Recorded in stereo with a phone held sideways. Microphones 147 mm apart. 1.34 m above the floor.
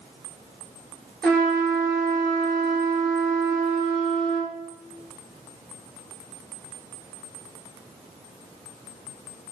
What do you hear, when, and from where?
1.2 s a trumpet: 5° left (ahead or behind), 4 m